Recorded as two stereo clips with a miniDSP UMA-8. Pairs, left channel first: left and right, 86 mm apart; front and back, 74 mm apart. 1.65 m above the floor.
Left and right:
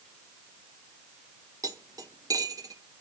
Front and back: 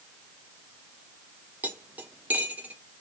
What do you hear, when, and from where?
1.6 s cutlery clinking: 120° right, 1.2 m